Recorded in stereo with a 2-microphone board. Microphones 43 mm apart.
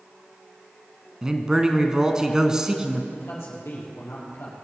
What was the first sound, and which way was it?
A man speaking, 15° right (ahead or behind).